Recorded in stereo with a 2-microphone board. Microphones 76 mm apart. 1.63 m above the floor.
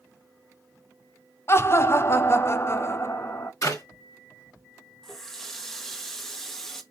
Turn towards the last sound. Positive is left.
turn(degrees=5)  # may be behind; listen again after turning